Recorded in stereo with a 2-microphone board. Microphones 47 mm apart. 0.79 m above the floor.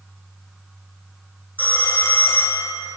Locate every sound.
1.6 s a phone ringing: 40° left (ahead or behind), 0.8 m